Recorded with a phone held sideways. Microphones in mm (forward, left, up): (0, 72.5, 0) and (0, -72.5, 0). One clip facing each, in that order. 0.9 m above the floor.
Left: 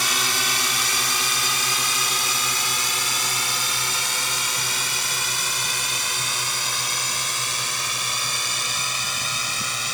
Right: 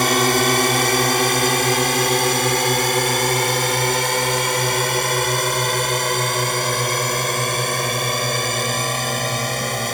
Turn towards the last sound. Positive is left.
turn(degrees=-60)  # may be behind; listen again after turning